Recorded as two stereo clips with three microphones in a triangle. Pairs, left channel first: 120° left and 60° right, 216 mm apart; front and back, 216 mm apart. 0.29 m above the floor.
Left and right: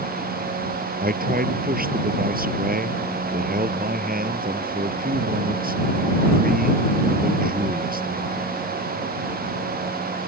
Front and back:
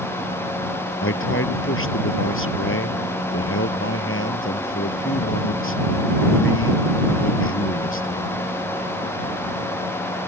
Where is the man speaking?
15° right.